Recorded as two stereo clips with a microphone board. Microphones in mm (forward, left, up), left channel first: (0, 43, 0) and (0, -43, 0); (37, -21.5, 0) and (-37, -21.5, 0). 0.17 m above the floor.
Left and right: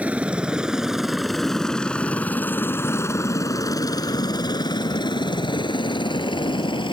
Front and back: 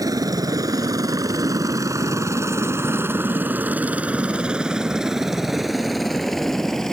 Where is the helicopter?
160° right; by 6.9 s 80° left.